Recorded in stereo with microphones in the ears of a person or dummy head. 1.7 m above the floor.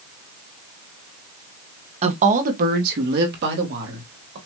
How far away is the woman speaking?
About 1.1 m.